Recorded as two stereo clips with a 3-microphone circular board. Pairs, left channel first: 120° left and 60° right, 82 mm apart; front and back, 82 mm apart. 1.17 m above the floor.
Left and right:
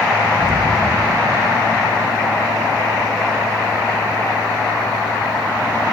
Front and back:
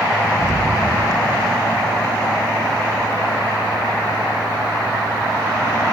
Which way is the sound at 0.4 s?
50° right.